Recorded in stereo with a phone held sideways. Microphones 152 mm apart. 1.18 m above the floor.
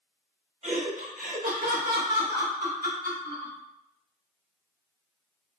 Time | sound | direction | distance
0.6 | laughter | 50° right (ahead or behind) | 1.0 m